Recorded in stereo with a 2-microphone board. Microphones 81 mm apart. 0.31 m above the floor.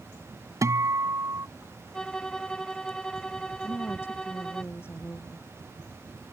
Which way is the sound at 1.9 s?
10° left (ahead or behind).